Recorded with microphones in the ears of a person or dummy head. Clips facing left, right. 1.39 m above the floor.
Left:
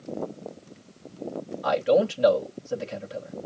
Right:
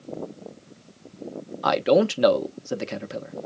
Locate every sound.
1.6 s a man speaking: 75° right (ahead or behind), 1.1 m